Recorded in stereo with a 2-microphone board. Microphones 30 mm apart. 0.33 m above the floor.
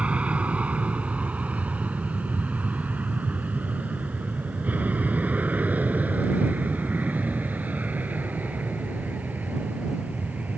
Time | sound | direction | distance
0.0 | an aircraft | 50° right (ahead or behind) | ?